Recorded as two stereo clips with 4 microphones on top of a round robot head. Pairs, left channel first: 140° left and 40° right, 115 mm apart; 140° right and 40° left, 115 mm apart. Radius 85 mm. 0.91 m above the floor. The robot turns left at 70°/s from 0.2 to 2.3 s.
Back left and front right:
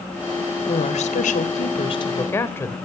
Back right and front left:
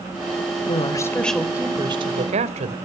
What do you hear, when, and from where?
0.7 s a woman speaking: straight behind, 4 m; by 2.7 s 65° left, 4 m